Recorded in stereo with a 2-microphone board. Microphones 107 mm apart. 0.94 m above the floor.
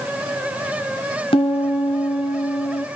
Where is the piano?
60° left (ahead or behind), 1.6 m.